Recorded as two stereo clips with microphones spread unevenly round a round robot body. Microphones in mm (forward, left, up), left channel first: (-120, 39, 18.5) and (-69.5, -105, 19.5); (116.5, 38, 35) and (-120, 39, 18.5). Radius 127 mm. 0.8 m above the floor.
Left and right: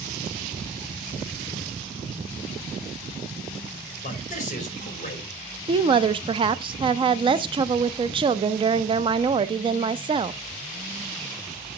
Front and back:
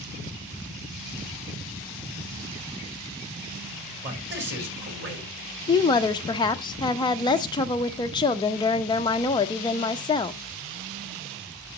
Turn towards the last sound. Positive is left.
turn(degrees=-60)